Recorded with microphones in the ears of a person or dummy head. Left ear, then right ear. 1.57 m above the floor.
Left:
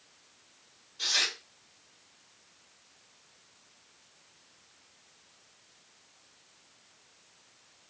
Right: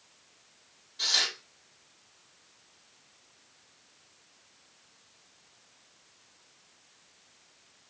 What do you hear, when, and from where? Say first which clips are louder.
1.0 s tearing paper: right 1 dB; 25° right (ahead or behind), 1.6 m